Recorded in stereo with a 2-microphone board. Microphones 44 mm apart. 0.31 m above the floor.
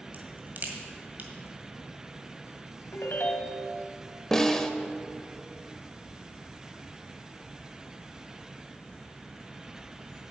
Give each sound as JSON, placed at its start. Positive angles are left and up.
{"t": 0.1, "sound": "a crack", "side_deg": -45, "distance_m": 1.8}
{"t": 2.9, "sound": "a ringtone", "side_deg": 55, "distance_m": 1.1}
{"t": 4.3, "sound": "a snare drum", "side_deg": 10, "distance_m": 0.8}